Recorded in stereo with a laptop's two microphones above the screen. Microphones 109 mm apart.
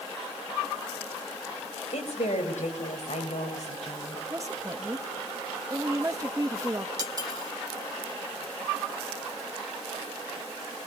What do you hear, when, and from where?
1.9 s a woman speaking: 75° left (ahead or behind), 5.5 m
4.3 s a woman speaking: 30° right (ahead or behind), 1.4 m
7.0 s cutlery clinking: 30° right (ahead or behind), 1.3 m